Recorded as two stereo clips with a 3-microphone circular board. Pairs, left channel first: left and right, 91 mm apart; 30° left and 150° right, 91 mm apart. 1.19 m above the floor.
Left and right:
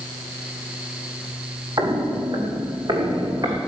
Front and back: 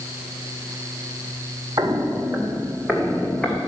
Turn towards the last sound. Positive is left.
turn(degrees=-50)